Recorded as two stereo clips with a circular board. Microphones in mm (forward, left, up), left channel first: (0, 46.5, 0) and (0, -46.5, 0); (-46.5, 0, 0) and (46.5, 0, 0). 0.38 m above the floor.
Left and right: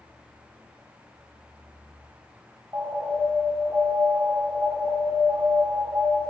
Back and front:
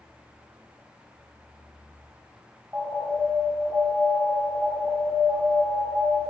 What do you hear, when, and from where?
2.7 s an alarm: 50° right, 2 m